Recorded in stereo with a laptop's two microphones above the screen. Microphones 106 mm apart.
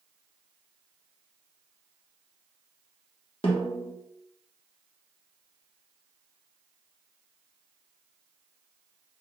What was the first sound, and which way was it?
A snare drum, 55° left (ahead or behind).